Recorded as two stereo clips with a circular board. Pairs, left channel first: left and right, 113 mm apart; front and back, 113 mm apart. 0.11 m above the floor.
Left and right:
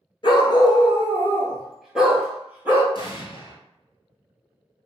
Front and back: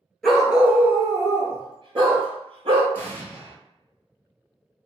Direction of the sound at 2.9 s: 65° left.